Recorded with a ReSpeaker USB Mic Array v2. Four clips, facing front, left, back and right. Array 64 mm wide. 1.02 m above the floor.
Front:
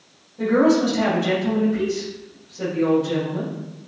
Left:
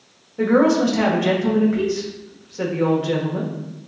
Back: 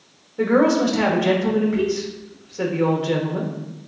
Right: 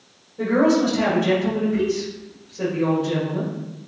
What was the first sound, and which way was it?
A woman speaking, 130° left.